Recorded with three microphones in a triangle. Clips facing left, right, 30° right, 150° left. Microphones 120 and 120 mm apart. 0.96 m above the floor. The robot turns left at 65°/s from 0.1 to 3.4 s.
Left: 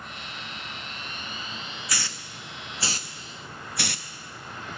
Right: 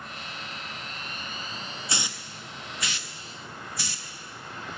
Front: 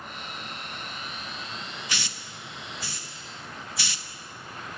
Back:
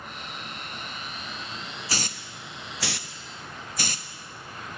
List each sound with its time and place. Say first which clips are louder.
1.9 s a hiss: right 2 dB, back 3 dB; 155° right, 0.6 m; by 4.1 s 110° left, 0.6 m